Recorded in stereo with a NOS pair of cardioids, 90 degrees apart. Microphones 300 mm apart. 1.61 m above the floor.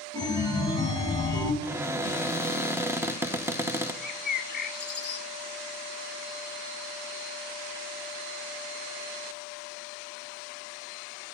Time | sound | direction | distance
0.1 | a chime | 10° left | 2.5 m
1.6 | a cupboard door | 10° right | 0.9 m
4.0 | a bird | 35° left | 1.4 m